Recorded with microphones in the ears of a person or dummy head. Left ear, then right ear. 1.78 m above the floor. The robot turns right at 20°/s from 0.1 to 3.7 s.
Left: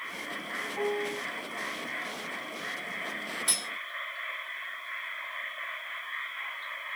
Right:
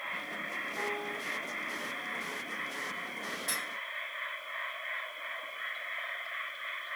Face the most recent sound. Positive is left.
turn(degrees=50)  # may be behind; listen again after turning